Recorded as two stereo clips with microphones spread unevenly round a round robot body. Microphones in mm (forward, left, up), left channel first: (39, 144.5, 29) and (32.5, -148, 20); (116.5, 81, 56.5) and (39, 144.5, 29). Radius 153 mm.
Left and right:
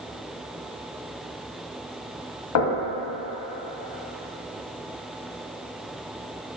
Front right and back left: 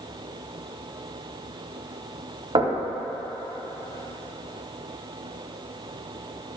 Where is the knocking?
115° left, 2.0 m.